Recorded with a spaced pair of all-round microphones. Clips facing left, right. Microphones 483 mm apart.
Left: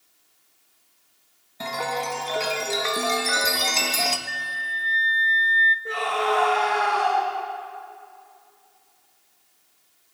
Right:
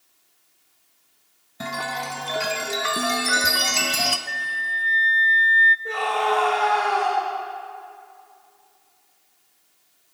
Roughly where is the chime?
Right.